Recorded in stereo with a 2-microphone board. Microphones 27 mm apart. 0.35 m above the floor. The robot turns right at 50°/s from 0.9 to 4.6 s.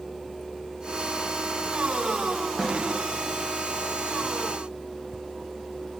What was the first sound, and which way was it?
A snare drum, 30° right (ahead or behind).